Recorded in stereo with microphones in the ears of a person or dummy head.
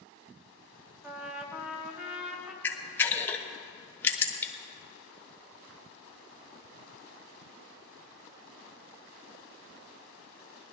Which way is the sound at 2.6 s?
15° left (ahead or behind).